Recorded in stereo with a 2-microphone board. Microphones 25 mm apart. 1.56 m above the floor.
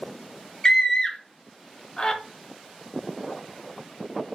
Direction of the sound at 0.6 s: 25° left (ahead or behind).